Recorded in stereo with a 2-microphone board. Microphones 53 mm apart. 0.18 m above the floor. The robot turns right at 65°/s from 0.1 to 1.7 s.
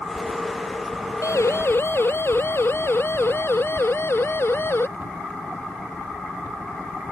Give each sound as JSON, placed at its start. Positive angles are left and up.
{"t": 1.2, "sound": "a siren", "side_deg": 75}